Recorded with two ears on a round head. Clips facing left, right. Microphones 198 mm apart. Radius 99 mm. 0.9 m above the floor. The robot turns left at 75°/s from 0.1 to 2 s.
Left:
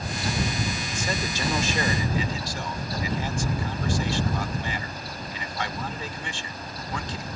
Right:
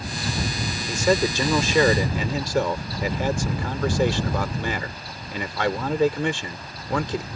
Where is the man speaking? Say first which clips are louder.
Right 9 dB; 45° right; by 7.3 s 130° right.